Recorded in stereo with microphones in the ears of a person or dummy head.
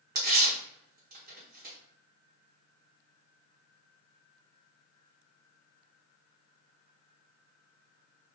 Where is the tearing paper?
40° right (ahead or behind), 1.1 m.